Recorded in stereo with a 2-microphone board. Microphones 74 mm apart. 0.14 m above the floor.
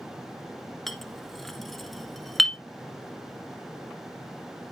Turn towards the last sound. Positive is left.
turn(degrees=5)  # may be behind; listen again after turning